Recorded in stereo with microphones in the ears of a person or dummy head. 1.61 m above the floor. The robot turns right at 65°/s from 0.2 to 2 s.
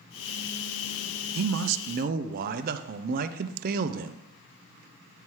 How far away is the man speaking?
About 0.5 m.